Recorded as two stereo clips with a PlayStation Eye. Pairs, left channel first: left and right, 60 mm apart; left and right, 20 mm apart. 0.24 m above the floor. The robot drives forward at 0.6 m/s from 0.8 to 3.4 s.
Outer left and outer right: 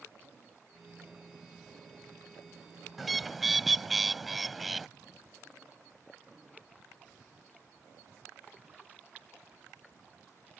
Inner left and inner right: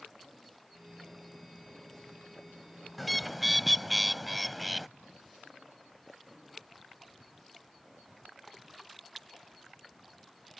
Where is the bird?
Centre (ahead or behind).